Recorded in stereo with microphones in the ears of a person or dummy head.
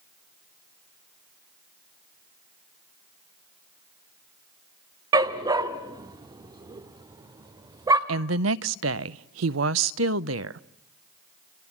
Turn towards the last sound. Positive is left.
turn(degrees=-85)